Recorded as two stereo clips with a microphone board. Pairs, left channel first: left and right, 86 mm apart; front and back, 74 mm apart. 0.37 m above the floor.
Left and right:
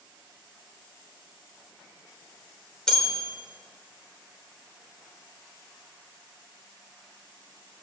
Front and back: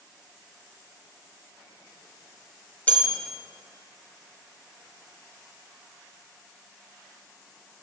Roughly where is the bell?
Ahead left.